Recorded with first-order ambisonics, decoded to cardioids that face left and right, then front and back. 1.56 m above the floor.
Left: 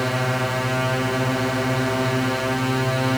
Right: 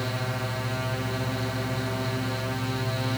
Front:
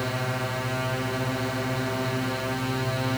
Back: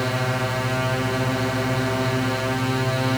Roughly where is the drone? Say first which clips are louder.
Left 8 dB, back 5 dB; behind left.